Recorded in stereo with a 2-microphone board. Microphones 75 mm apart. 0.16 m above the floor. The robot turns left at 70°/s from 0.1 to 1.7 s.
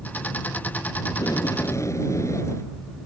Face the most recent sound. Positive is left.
turn(degrees=55)